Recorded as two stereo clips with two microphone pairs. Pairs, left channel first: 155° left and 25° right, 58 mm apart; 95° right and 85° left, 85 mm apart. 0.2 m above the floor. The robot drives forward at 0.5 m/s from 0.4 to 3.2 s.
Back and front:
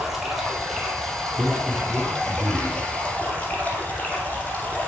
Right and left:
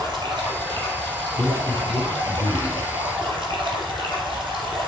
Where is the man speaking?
45° left, 1.8 m; by 2.9 s 85° left, 1.6 m.